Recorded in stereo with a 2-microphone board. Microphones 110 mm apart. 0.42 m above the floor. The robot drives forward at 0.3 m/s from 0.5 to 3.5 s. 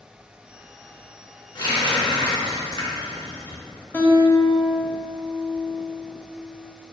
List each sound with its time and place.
1.6 s a running tap: 45° left (ahead or behind), 0.7 m; by 3.6 s 35° left (ahead or behind), 0.9 m
3.9 s a guitar: 20° left (ahead or behind), 0.5 m